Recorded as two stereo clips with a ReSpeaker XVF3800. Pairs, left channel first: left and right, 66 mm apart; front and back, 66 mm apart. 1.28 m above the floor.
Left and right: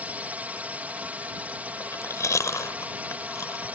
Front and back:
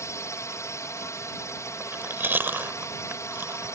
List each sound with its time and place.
0.0 s a drone: 30° right
1.8 s chewing: 125° left